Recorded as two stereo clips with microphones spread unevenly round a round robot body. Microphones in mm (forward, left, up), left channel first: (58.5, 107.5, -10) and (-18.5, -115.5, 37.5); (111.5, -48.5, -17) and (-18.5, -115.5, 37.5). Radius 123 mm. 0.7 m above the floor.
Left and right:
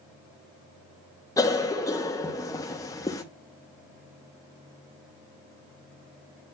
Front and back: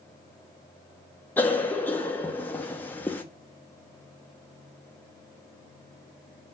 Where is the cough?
30° left, 0.9 m.